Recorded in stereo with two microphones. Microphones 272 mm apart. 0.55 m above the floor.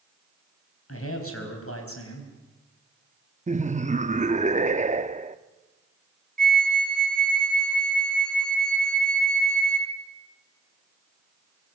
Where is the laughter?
25° right (ahead or behind), 0.8 m.